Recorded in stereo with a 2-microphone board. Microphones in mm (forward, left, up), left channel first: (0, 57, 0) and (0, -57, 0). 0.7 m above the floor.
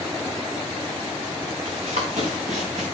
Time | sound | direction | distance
1.6 | running footsteps | 80° right | 5 m